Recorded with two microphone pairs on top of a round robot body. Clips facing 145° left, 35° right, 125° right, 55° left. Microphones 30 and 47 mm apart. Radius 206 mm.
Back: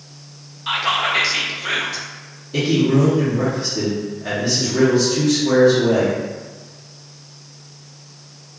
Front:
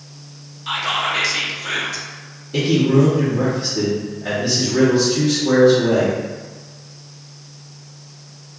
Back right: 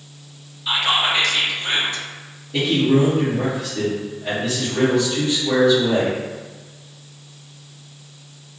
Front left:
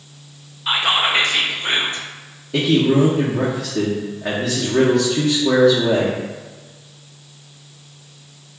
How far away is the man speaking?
About 0.8 m.